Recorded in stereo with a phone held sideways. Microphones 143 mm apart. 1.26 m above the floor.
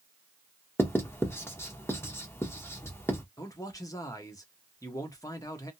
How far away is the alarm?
No alarm in this recording.